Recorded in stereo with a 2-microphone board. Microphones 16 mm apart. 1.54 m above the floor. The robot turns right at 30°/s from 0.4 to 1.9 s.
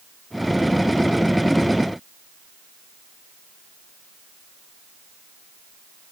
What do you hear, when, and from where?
Only background noise.